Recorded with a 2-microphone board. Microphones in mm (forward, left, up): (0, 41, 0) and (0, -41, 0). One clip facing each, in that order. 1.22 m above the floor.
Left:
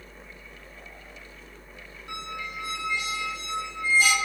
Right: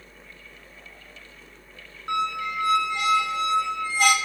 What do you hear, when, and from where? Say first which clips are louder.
2.1 s a squeak: right 10 dB; 65° right (ahead or behind), 0.6 m